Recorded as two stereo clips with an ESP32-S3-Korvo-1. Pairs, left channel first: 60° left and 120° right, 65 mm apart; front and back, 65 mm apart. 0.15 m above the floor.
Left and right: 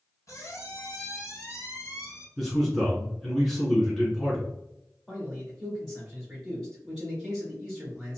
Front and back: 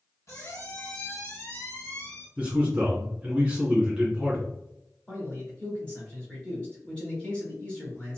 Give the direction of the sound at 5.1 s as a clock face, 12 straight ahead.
1 o'clock.